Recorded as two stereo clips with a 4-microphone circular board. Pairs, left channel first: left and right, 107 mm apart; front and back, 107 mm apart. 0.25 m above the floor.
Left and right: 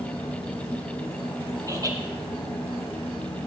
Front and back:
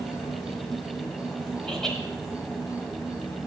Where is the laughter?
80° right, 1.3 m.